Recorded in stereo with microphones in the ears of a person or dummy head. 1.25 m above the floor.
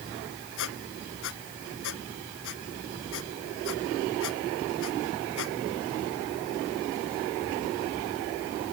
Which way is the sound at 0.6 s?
65° left (ahead or behind).